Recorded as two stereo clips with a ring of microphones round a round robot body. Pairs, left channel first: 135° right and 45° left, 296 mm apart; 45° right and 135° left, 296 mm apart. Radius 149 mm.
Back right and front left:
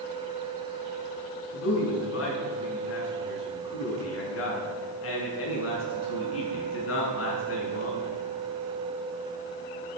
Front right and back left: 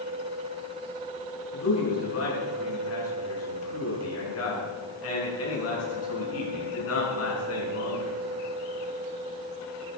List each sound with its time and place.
1.5 s a man speaking: 90° right, 7.5 m